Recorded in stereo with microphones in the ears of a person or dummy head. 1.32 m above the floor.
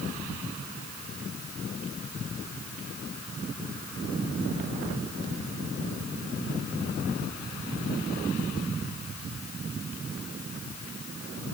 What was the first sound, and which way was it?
Only background noise.